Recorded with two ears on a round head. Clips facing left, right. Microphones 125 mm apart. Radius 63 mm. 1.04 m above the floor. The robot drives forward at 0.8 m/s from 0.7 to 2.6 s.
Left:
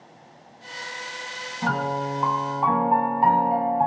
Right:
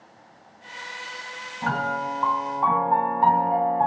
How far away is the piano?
About 2.5 m.